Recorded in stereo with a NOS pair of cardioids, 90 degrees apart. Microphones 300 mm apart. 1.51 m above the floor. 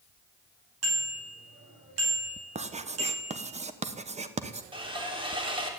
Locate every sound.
0.8 s a bicycle bell: 55° right, 8 m
2.5 s writing: 20° right, 1.2 m
4.7 s sawing: 15° right, 3 m